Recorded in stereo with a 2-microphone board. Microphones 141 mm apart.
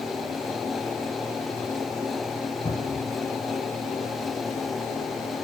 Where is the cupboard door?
50° left (ahead or behind), 1.9 m.